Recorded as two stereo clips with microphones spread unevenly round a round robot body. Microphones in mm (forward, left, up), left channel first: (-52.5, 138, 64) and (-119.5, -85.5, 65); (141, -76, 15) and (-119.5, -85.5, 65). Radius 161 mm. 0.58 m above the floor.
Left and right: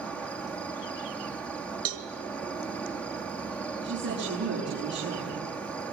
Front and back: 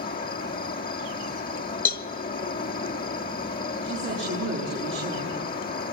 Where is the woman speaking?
145° right, 8 m.